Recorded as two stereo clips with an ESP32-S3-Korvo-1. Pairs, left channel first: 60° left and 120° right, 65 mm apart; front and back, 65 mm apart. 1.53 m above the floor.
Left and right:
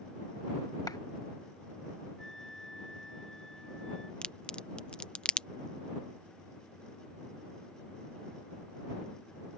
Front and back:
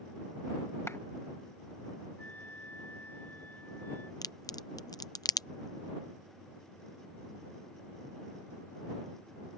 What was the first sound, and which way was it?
A clap, 45° left.